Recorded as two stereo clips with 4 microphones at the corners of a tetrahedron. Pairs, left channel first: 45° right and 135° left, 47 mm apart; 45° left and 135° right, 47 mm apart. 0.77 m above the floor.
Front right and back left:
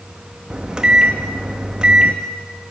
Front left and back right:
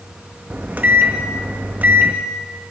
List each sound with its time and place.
0.5 s a microwave: 165° right, 0.7 m